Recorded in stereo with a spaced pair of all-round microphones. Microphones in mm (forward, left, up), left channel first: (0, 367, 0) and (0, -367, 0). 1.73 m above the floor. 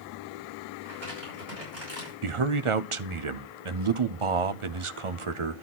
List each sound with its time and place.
0.8 s crumpling: 80° right, 6.5 m
2.2 s a man speaking: 45° right (ahead or behind), 0.7 m